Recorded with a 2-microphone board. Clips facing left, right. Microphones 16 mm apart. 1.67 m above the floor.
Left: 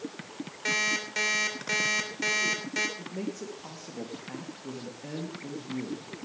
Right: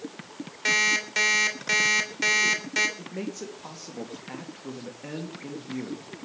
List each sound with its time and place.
0.7 s an alarm clock: 25° right (ahead or behind), 3 m
3.0 s a man speaking: 35° right (ahead or behind), 2.5 m